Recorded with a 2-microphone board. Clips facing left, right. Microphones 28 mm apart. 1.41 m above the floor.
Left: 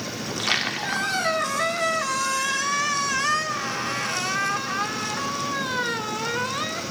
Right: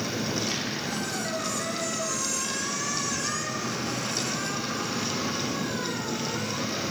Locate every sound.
0.2 s a squeak: 55° left (ahead or behind), 1.8 m